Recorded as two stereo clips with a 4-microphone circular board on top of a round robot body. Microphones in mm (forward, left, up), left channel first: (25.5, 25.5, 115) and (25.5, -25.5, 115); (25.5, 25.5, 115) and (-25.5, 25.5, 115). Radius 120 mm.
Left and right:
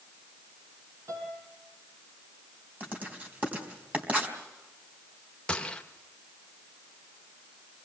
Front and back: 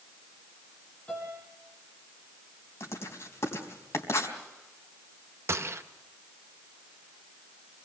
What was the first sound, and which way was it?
A piano, 70° right.